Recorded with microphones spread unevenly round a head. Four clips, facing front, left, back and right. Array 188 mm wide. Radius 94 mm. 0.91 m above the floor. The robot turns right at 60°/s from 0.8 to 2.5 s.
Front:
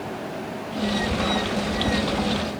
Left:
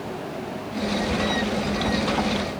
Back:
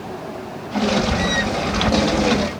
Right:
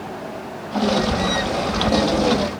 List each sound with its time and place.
Only background noise.